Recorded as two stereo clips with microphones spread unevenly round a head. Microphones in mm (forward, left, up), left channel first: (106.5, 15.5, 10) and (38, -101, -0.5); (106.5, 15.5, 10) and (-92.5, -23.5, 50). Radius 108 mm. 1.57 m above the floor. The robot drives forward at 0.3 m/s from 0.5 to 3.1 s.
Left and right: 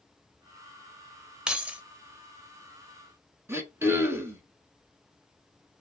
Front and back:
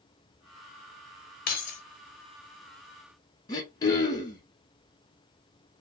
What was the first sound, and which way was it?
Keys jangling, 35° right.